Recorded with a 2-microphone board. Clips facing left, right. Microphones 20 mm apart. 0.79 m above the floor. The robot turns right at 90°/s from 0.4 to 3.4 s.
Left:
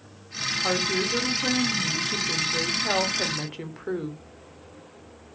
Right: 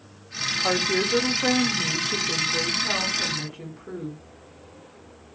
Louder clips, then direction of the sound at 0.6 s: Right 2 dB; 170° right.